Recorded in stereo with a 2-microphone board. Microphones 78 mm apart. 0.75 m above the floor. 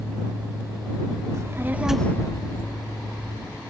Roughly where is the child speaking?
Right.